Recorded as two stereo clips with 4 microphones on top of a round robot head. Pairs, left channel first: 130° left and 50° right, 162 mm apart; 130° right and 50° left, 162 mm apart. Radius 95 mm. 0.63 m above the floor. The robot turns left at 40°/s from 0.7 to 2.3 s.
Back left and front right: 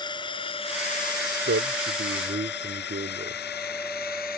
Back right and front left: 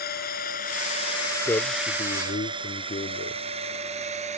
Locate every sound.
0.0 s a drone: 165° right; by 4.4 s 100° left
1.4 s a man speaking: 55° right; by 3.4 s 90° right